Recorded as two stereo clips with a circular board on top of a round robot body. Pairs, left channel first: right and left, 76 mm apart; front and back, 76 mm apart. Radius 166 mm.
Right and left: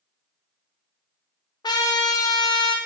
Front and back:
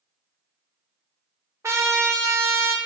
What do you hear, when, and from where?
1.6 s a trumpet: 120° right, 0.5 m